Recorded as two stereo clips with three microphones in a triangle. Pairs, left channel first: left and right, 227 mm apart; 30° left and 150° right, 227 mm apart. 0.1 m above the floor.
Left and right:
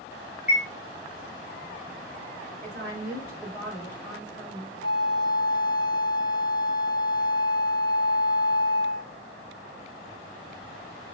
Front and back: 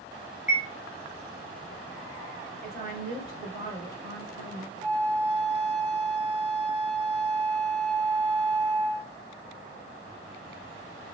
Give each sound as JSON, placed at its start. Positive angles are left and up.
{"t": 0.5, "sound": "a chime", "azimuth_deg": -170, "distance_m": 1.0}
{"t": 2.6, "sound": "a woman speaking", "azimuth_deg": 170, "distance_m": 1.4}
{"t": 4.8, "sound": "a flute", "azimuth_deg": 160, "distance_m": 0.7}